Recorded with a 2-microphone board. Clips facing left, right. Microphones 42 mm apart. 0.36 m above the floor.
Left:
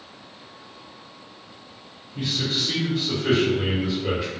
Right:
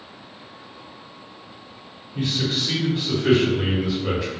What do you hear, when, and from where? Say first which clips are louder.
2.1 s a man speaking: right 2 dB; 30° right (ahead or behind), 1.3 m; by 4.3 s 10° left (ahead or behind), 1.1 m